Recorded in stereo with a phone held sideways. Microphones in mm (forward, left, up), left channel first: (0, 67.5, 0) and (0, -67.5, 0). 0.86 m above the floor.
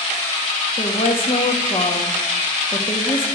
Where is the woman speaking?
40° left (ahead or behind), 1.4 m.